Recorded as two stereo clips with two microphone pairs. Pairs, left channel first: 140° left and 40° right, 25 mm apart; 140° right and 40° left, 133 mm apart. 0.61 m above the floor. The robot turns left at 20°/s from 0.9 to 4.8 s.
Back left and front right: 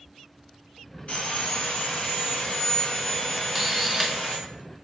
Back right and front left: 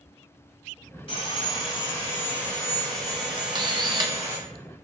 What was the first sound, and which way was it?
Sawing, 175° left.